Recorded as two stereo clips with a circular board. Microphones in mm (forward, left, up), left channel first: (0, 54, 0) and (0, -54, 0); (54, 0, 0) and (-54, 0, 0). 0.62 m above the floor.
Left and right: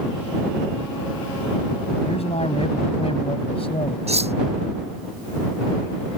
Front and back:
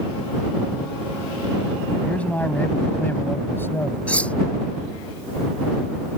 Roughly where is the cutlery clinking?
Right.